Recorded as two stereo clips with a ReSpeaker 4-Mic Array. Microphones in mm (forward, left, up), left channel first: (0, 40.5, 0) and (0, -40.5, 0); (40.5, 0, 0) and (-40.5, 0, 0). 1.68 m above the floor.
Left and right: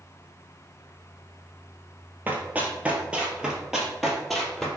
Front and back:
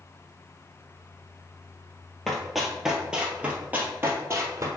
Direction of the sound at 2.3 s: 75° right.